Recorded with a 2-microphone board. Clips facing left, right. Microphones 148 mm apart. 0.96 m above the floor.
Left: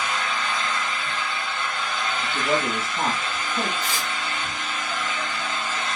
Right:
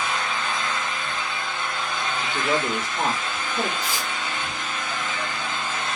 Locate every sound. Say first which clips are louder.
0.0 s an engine running: even; 10° left (ahead or behind), 1.6 m
2.2 s a man speaking: even; 50° left (ahead or behind), 1.4 m
3.8 s tearing paper: even; 5° right (ahead or behind), 1.4 m